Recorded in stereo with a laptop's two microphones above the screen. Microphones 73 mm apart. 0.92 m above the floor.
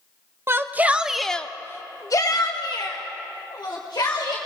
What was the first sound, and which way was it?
A shout, 35° right (ahead or behind).